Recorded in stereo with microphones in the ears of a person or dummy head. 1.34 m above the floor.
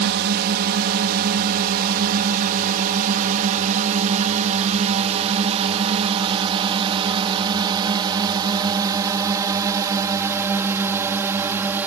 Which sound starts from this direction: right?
A drone, at 0.0 s.